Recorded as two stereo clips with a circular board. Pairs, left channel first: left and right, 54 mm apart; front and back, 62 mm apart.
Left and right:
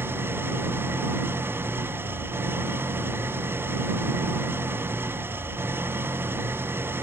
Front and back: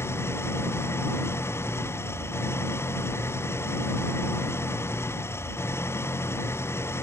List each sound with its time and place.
0.0 s an engine running: 45° right